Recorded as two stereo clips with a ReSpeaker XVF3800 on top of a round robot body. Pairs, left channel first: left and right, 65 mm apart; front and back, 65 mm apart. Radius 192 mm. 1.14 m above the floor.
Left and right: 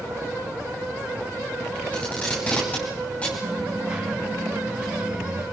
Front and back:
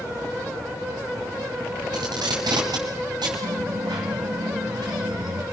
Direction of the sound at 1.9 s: 165° left.